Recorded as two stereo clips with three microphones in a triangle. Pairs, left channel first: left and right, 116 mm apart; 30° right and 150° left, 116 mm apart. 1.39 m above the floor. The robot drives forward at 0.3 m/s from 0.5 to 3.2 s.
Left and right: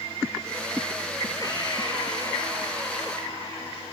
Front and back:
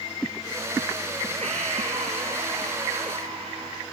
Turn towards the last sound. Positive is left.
turn(degrees=145)